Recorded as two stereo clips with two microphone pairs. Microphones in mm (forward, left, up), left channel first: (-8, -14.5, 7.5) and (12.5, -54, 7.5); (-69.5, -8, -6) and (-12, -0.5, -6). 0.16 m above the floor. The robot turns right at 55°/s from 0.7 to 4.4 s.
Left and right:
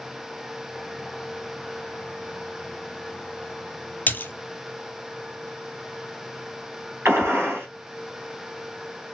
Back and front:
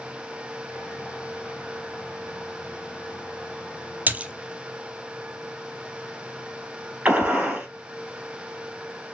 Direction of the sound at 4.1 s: 70° left.